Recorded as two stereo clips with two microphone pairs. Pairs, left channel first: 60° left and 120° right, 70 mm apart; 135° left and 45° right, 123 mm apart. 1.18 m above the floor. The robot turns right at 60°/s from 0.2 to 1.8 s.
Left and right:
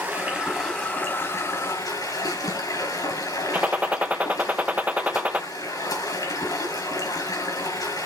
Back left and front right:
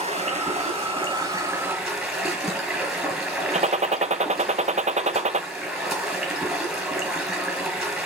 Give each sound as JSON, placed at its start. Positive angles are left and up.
{"t": 0.0, "sound": "running water", "azimuth_deg": -55, "distance_m": 5.0}
{"t": 3.5, "sound": "a gunshot", "azimuth_deg": -55, "distance_m": 0.6}